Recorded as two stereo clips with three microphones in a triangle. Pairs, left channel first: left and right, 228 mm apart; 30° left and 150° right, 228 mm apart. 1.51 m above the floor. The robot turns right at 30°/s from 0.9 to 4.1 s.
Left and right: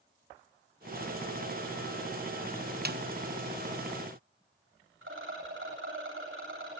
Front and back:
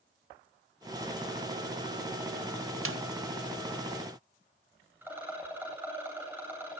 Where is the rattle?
70° right, 8.5 m.